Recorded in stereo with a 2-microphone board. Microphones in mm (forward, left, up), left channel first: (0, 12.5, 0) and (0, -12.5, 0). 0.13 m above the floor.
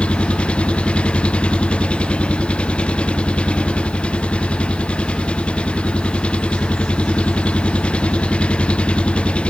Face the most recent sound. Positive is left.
turn(degrees=45)  # may be behind; listen again after turning